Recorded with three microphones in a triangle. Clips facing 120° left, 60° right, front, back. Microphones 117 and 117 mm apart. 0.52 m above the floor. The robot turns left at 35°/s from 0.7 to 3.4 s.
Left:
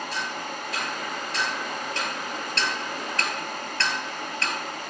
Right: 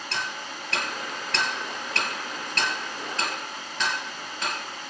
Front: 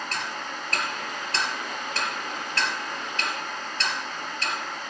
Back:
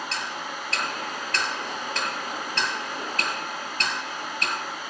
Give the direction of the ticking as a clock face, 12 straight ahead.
1 o'clock.